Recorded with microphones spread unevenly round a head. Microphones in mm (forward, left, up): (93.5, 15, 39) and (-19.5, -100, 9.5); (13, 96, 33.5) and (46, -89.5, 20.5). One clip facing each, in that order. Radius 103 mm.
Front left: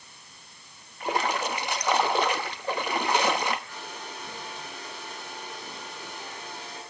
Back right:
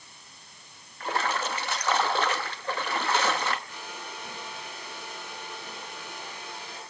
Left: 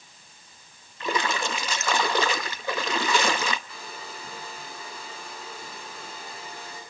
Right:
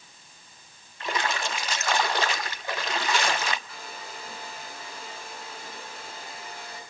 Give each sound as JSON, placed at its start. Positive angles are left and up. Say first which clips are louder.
{"t": 1.0, "sound": "a splash", "louder": "front left 2 dB, left 2 dB", "azimuth_deg": 120, "distance_m": 0.9}
{"t": 3.7, "sound": "a hair dryer", "louder": "front left 1 dB, left 1 dB", "azimuth_deg": 105, "distance_m": 9.5}